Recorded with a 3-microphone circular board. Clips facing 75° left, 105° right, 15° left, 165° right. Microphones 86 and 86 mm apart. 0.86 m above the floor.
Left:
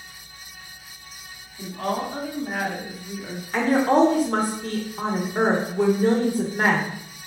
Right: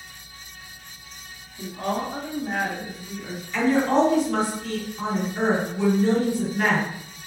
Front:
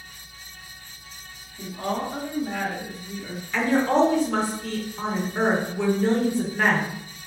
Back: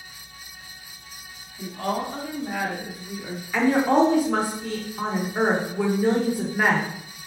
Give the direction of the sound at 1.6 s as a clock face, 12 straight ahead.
1 o'clock.